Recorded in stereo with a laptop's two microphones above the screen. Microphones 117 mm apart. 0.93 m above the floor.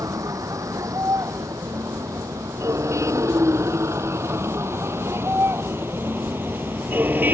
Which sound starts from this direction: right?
A vehicle, at 0.0 s.